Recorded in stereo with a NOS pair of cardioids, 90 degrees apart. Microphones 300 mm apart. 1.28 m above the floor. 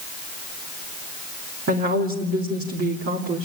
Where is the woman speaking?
50° right, 3 m.